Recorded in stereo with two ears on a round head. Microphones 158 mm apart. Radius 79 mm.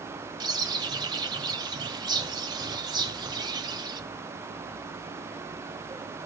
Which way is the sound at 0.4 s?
25° right (ahead or behind).